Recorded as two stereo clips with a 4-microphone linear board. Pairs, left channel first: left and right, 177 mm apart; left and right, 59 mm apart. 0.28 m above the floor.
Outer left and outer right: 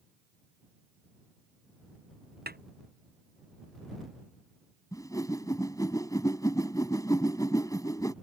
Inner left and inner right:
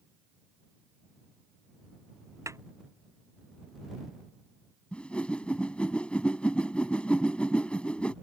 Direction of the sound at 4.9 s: 20° left (ahead or behind).